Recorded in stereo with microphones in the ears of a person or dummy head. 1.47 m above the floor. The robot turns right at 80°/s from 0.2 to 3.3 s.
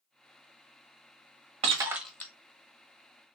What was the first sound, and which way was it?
Breaking glass, 35° right (ahead or behind).